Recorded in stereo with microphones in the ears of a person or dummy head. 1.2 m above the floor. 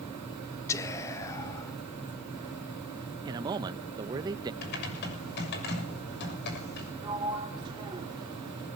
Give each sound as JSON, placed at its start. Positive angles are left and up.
{"t": 0.7, "sound": "whispering", "side_deg": 20, "distance_m": 1.3}
{"t": 3.2, "sound": "a man speaking", "side_deg": -20, "distance_m": 0.7}
{"t": 4.6, "sound": "typing on a keyboard", "side_deg": 60, "distance_m": 6.5}
{"t": 7.0, "sound": "a sliding door", "side_deg": -25, "distance_m": 4.0}